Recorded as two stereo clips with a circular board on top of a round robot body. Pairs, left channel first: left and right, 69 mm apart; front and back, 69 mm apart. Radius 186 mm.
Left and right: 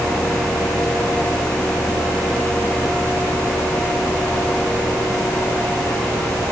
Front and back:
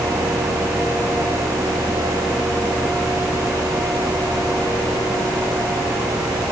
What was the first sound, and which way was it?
Only background noise.